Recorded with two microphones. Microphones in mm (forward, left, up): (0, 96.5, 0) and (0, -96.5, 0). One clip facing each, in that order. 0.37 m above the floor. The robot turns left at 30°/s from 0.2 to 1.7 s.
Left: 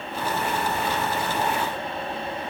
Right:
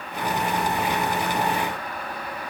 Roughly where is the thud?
No thud in this recording.